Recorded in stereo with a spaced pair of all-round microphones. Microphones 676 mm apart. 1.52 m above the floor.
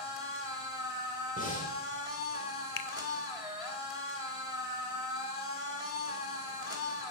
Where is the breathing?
10° left (ahead or behind), 4 m.